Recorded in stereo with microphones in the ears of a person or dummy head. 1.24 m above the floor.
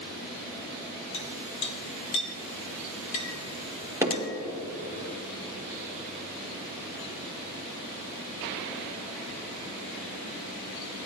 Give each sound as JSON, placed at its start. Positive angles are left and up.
{"t": 1.1, "sound": "a clink", "side_deg": 30, "distance_m": 1.3}
{"t": 4.0, "sound": "hammering", "side_deg": -15, "distance_m": 1.4}